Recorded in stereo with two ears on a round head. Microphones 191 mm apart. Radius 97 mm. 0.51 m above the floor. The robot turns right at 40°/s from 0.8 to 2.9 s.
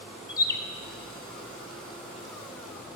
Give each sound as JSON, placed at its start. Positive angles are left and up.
{"t": 0.3, "sound": "a bird", "side_deg": 20, "distance_m": 0.5}